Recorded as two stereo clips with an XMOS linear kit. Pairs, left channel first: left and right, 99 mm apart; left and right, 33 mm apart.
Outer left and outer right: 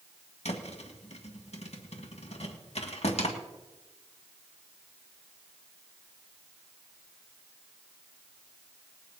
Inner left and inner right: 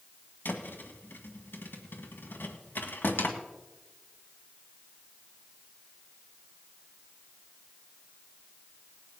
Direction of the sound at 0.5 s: 80° left.